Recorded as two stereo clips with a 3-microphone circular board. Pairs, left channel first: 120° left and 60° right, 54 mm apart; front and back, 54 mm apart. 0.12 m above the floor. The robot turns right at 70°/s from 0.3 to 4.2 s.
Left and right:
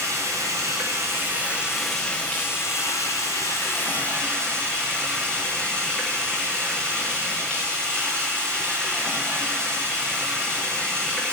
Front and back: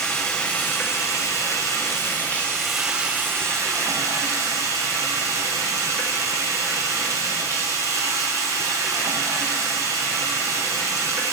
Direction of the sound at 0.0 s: 80° right.